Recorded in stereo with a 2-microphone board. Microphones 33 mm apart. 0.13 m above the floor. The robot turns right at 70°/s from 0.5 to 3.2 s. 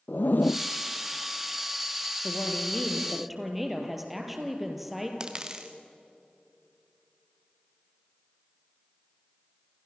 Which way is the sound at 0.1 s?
75° left (ahead or behind).